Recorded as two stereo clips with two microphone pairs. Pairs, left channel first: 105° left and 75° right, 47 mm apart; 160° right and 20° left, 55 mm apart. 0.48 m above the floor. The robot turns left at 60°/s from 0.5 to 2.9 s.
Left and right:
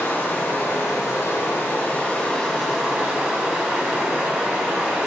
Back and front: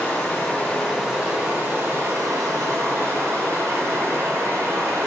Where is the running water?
135° left, 2.5 m; by 5.1 s 10° right, 2.5 m.